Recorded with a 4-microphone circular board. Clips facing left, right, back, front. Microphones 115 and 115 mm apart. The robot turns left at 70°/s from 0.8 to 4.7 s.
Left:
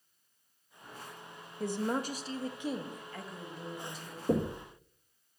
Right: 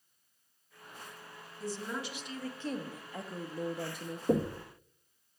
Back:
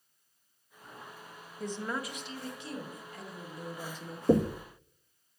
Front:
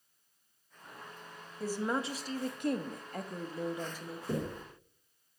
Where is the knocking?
175° right, 0.7 m; by 4.6 s 160° left, 0.7 m.